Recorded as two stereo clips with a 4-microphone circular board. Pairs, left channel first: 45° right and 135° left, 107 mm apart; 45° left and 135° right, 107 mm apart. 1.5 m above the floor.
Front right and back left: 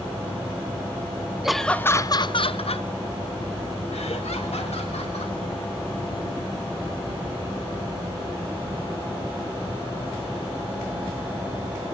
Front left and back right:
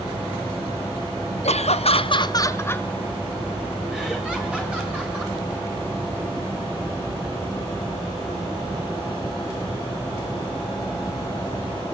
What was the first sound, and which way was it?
Laughter, 50° left.